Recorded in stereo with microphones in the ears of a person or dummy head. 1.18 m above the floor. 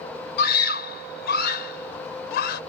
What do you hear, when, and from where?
0.4 s a scream: 55° left (ahead or behind)